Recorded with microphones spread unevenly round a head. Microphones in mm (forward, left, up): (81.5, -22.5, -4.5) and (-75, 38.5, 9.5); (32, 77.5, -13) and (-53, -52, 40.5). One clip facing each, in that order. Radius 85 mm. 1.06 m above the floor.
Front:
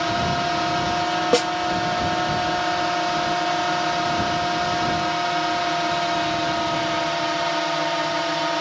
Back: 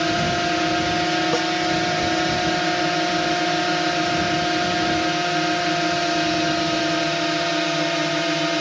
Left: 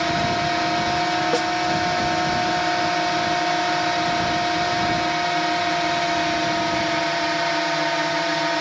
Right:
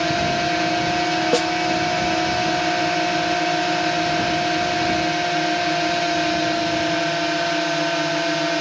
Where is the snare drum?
65° right.